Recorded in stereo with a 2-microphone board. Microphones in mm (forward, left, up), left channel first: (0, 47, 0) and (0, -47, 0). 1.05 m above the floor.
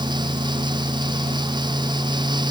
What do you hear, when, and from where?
Only background noise.